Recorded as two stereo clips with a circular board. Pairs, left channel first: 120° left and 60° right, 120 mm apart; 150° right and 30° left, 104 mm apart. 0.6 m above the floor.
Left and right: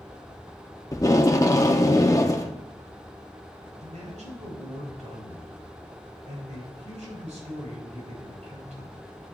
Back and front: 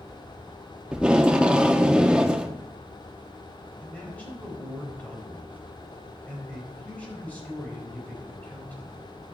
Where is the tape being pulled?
100° left, 0.8 m.